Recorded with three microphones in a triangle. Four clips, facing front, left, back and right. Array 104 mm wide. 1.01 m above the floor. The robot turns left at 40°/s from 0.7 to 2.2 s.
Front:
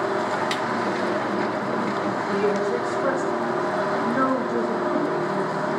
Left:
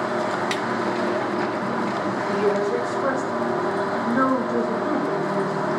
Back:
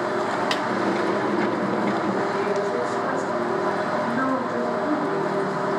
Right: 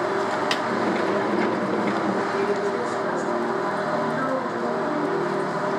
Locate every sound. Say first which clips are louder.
0.5 s a snare drum: even, back 1 dB; 120° right, 0.6 m
2.3 s a woman speaking: left 2 dB, front 1 dB; 60° left, 4.5 m